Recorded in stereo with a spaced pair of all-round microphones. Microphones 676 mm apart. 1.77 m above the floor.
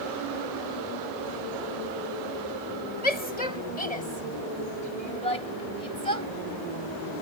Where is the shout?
65° left (ahead or behind); by 6.3 s 55° left (ahead or behind).